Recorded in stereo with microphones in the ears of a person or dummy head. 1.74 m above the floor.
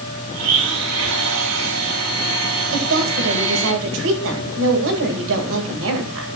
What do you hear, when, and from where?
0.3 s a blender: 80° right, 8 m
2.7 s a woman speaking: 75° right (ahead or behind), 9.5 m